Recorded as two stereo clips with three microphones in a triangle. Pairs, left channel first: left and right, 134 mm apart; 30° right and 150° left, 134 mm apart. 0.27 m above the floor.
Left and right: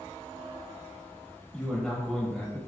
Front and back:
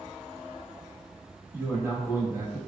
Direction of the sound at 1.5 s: 160° left.